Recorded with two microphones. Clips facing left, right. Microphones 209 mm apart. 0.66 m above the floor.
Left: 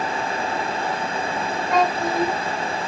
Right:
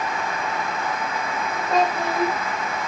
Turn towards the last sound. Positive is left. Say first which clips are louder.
# left 1 dB
turn(degrees=-35)  # may be behind; listen again after turning